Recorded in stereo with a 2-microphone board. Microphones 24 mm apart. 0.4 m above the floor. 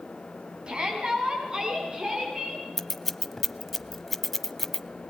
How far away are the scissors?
About 0.7 m.